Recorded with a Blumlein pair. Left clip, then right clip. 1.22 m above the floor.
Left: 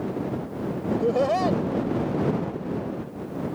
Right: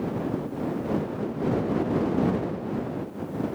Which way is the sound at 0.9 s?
45° left.